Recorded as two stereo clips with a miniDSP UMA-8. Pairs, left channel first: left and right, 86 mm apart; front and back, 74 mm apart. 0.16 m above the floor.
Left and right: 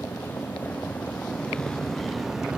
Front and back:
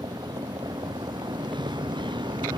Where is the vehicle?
155° left; by 2.6 s 170° right.